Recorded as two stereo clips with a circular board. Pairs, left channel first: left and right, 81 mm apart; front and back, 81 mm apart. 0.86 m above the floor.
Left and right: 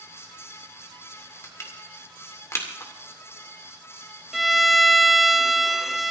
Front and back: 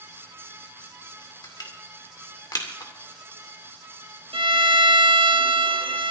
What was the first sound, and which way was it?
Crushing, 35° left.